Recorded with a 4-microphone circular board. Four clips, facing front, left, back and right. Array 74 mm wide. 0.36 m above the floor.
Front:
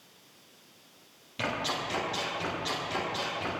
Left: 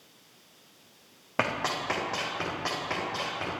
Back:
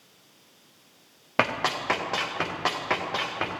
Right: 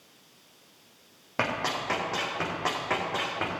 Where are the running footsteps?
170° left, 4.5 m; by 3.5 s 155° right, 4.5 m.